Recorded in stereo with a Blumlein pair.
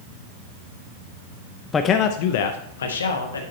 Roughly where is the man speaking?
Ahead.